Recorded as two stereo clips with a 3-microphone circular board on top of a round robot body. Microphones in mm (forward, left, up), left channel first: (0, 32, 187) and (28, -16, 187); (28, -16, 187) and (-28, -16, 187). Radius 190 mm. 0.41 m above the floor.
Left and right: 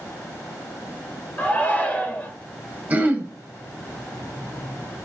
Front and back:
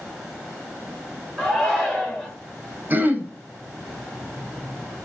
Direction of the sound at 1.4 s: 95° left.